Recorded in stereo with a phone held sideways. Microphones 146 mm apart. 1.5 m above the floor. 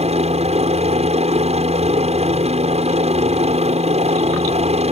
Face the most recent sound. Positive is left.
turn(degrees=-45)  # may be behind; listen again after turning